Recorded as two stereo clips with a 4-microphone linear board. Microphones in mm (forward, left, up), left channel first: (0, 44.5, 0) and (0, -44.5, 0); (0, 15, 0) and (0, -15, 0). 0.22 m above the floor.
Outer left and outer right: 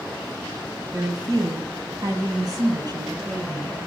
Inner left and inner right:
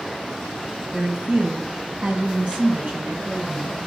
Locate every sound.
0.9 s a woman speaking: 35° right (ahead or behind), 1.7 m; by 3.7 s 45° right (ahead or behind), 4 m